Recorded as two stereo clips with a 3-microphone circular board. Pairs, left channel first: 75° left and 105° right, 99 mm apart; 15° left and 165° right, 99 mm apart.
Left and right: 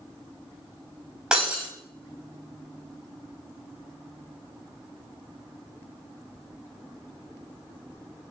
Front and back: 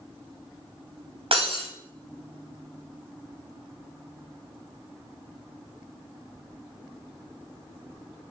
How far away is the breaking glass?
About 4.5 m.